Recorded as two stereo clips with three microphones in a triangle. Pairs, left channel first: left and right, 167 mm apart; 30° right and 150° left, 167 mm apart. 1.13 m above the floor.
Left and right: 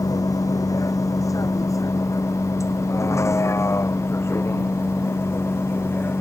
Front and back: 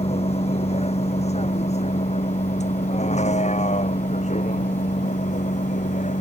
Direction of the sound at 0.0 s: 20° left.